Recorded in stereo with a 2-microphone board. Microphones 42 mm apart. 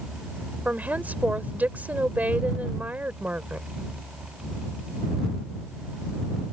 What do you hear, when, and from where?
0.7 s a woman speaking: 40° right (ahead or behind)